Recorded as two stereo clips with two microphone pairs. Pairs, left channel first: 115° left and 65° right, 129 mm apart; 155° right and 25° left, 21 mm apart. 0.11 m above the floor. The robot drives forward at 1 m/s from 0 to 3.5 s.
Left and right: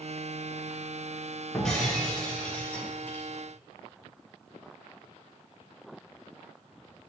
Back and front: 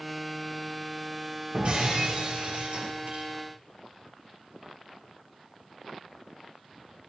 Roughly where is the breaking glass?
Ahead left.